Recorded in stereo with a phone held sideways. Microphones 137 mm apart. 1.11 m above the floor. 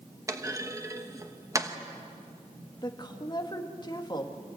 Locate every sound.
0.3 s a clunk: 25° right (ahead or behind), 1.2 m
2.8 s a woman speaking: 35° left (ahead or behind), 2 m